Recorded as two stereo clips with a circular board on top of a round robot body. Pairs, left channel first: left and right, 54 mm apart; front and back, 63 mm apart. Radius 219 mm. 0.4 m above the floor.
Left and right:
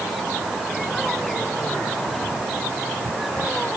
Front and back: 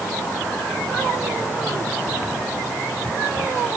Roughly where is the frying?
No frying in this recording.